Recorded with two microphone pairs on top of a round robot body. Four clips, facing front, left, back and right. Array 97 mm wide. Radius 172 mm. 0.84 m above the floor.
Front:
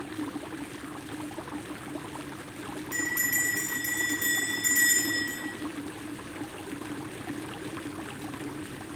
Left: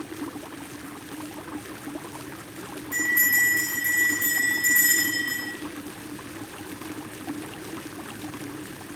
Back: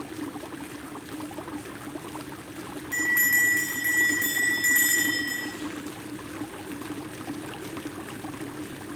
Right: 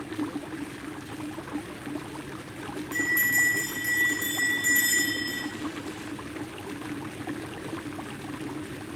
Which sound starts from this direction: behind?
A bell, at 2.9 s.